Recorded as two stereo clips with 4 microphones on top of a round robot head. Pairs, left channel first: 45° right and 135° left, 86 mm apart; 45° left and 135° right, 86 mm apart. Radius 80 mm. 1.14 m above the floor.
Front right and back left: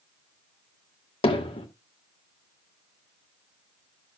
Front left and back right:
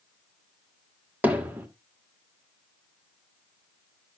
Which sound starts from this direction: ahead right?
Hammering, at 1.2 s.